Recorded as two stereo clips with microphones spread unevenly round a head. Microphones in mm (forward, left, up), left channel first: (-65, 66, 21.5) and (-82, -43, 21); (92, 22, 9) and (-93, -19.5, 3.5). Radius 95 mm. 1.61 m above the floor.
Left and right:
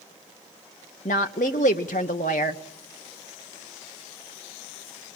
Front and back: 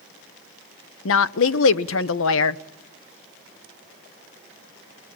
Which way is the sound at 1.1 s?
30° left.